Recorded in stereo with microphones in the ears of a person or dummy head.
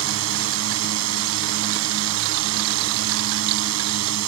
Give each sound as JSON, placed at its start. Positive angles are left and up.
{"t": 0.0, "sound": "a drone", "side_deg": -80}